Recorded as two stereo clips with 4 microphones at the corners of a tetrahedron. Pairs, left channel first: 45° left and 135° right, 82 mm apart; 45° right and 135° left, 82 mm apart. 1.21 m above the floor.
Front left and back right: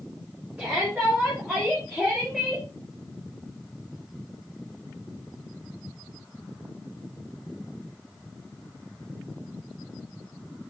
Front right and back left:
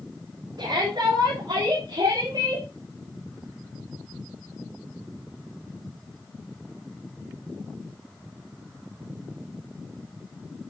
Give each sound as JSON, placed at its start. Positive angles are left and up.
{"t": 0.6, "sound": "a shout", "azimuth_deg": 145, "distance_m": 4.0}